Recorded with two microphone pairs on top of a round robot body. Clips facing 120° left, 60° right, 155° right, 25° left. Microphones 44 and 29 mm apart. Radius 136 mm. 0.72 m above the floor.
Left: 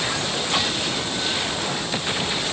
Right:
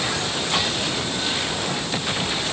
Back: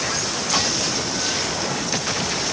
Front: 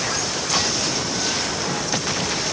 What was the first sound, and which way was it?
Only background noise.